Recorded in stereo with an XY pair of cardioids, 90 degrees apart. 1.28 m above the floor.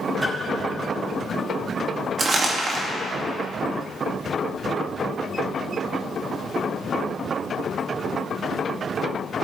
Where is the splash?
10° right, 3 m.